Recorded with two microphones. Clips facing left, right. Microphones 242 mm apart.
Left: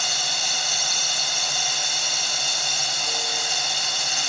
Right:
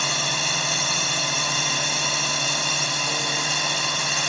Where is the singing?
I don't hear singing.